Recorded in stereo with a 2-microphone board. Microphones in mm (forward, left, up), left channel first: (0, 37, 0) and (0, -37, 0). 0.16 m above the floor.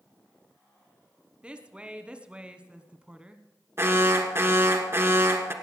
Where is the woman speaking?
15° right (ahead or behind), 1.0 m.